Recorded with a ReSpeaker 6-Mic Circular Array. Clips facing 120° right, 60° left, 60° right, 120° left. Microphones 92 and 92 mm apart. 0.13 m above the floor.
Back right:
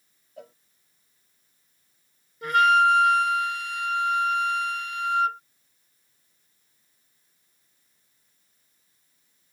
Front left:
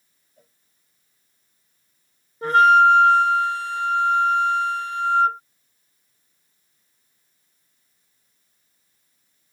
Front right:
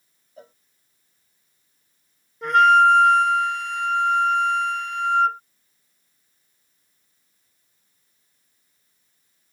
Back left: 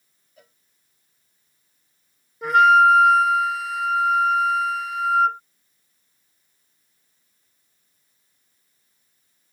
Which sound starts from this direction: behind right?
A cowbell, at 0.4 s.